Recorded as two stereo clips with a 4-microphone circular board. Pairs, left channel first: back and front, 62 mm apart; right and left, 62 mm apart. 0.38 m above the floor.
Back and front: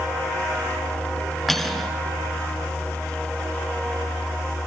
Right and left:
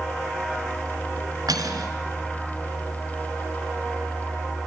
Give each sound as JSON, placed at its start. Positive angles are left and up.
{"t": 1.5, "sound": "cutlery clinking", "azimuth_deg": 90, "distance_m": 3.5}